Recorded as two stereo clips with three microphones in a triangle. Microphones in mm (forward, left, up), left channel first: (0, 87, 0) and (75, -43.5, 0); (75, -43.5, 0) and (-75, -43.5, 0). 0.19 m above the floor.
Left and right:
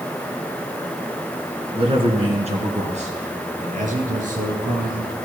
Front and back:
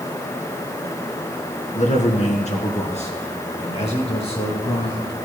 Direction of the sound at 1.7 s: 15° right.